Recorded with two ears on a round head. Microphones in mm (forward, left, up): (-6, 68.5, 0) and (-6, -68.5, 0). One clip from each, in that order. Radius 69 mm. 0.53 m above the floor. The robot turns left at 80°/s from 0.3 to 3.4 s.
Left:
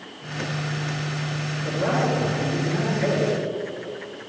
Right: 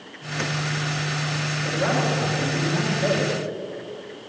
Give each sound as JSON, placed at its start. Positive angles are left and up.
{"t": 1.6, "sound": "a man speaking", "azimuth_deg": -95, "distance_m": 6.5}